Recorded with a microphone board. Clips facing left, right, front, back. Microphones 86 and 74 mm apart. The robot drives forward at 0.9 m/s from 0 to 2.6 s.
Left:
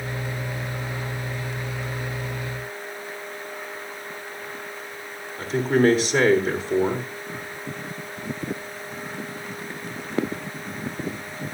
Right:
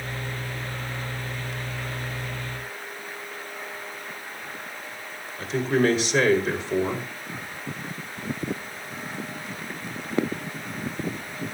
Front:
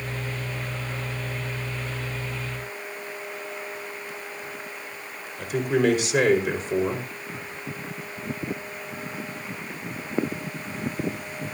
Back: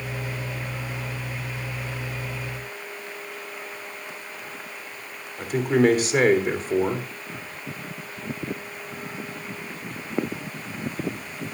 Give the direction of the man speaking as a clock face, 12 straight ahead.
7 o'clock.